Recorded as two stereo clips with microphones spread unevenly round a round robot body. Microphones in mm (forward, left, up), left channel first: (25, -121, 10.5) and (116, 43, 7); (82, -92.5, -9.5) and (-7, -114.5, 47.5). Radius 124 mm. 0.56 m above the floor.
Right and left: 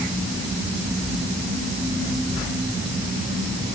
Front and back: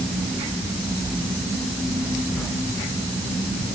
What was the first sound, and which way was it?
Only background noise.